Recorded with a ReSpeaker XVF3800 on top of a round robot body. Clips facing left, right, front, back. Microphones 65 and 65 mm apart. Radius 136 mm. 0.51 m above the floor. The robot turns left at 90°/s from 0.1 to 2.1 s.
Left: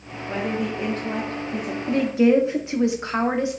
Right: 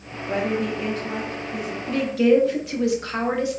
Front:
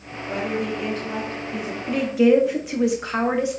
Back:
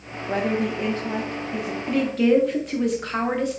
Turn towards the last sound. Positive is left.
turn(degrees=70)